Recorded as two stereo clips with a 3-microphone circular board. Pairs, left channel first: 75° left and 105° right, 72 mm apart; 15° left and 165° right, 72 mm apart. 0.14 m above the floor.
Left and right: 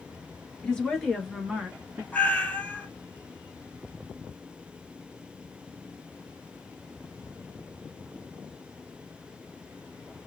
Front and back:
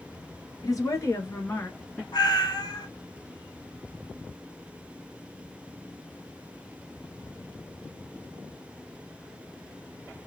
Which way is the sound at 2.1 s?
Straight ahead.